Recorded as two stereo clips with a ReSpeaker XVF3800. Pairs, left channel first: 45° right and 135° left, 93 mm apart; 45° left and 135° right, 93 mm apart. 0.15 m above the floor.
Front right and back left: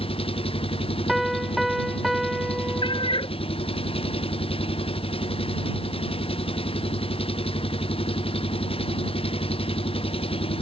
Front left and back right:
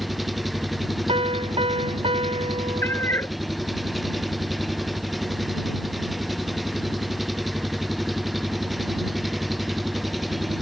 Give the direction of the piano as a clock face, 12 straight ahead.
5 o'clock.